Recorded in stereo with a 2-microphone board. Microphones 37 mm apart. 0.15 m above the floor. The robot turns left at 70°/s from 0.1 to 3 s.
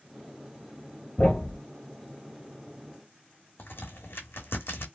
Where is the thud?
40° left (ahead or behind), 1.2 m; by 1.6 s 15° left (ahead or behind), 1.2 m.